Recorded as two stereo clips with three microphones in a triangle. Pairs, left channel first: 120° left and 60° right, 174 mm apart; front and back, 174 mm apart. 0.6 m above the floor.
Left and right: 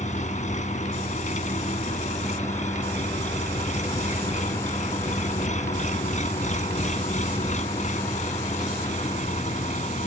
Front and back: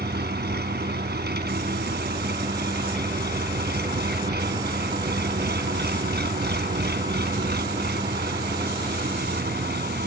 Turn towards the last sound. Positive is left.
turn(degrees=165)